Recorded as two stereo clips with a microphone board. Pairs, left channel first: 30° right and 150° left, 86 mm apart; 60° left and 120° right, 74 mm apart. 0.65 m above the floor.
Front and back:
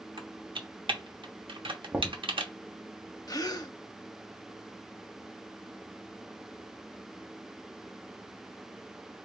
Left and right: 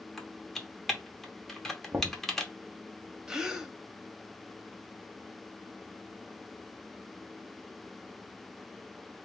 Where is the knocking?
155° right, 0.7 m.